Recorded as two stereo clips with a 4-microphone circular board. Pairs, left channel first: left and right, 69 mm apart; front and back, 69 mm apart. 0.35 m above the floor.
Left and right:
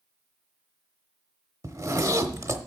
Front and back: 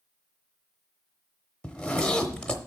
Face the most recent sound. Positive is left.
turn(degrees=-75)